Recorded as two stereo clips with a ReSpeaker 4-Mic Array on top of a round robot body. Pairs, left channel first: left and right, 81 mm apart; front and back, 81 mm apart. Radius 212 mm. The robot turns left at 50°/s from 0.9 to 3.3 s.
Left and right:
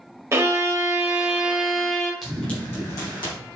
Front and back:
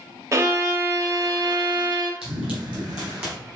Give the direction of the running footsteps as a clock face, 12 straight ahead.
6 o'clock.